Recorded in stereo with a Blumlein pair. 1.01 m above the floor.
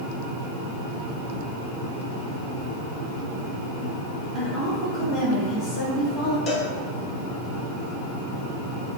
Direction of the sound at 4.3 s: 5° right.